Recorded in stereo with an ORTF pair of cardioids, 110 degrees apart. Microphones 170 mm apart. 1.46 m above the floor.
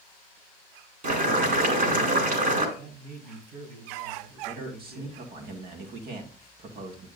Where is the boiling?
55° right, 3.5 m.